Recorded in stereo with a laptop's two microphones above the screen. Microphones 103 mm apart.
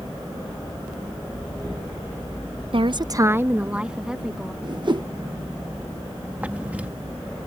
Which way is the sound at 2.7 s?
60° right (ahead or behind).